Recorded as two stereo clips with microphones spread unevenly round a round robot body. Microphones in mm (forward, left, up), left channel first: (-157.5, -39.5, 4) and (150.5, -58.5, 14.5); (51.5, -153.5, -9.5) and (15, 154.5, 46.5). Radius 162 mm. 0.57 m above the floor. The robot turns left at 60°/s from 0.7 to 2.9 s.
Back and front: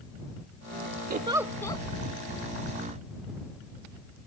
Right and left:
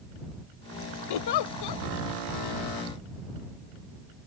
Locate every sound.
1.1 s a giggle: 70° right; by 1.8 s 110° right